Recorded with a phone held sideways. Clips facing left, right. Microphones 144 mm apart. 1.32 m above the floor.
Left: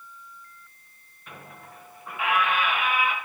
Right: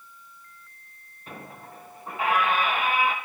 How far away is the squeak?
About 0.8 m.